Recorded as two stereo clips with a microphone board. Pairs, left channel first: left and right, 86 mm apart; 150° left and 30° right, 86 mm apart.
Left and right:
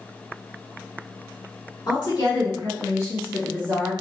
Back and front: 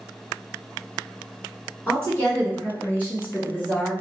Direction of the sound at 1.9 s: 85° left.